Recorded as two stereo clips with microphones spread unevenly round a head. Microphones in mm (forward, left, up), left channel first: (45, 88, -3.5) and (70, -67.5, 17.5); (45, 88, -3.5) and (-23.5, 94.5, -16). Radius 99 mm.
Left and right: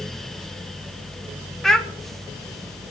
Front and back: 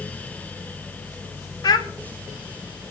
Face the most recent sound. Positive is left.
turn(degrees=10)